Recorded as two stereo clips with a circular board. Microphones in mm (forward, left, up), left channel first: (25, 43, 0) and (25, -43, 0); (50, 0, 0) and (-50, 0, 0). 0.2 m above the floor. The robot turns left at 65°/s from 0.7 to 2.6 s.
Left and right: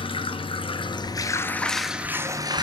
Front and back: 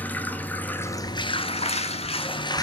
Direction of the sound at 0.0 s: 75° left.